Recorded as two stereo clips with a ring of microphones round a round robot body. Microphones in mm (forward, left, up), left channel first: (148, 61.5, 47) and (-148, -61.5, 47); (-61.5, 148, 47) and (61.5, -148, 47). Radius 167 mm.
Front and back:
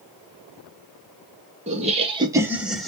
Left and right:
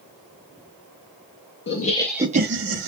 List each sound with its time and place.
1.7 s laughter: 145° left, 0.9 m; by 2.9 s 65° right, 1.1 m